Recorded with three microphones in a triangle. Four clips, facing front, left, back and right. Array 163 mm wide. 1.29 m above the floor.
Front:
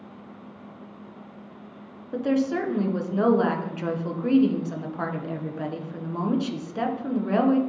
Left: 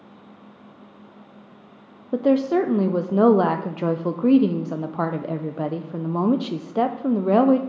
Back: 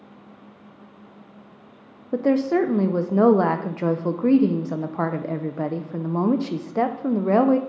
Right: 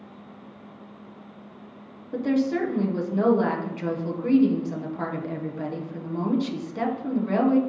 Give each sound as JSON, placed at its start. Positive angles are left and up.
{"t": 2.1, "sound": "a woman speaking", "azimuth_deg": 125, "distance_m": 0.5}